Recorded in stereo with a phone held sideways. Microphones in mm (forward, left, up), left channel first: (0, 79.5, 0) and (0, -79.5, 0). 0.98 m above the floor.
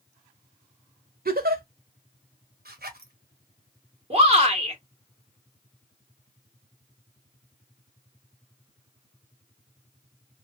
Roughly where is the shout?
Right.